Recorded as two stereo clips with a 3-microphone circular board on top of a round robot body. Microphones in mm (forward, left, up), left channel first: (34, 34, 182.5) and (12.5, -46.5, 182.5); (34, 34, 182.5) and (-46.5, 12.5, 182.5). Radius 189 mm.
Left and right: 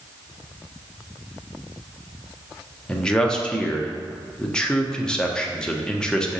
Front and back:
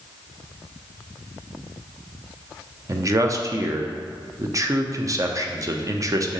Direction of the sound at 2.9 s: 155° left.